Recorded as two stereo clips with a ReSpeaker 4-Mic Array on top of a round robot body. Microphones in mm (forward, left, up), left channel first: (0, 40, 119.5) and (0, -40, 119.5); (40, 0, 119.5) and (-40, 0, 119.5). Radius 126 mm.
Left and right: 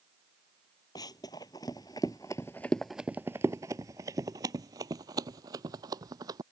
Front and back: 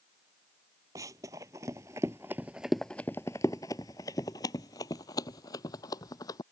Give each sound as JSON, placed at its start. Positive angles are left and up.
{"t": 0.9, "sound": "running footsteps", "azimuth_deg": 130}